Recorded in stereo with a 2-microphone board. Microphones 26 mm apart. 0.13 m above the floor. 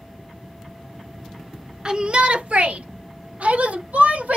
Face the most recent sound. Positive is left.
turn(degrees=-75)  # may be behind; listen again after turning